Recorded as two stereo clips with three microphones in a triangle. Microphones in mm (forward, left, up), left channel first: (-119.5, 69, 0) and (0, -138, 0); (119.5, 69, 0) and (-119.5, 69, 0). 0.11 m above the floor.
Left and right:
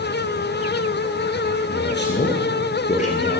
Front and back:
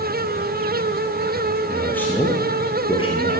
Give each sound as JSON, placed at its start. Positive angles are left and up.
{"t": 1.7, "sound": "a man speaking", "azimuth_deg": 85, "distance_m": 2.5}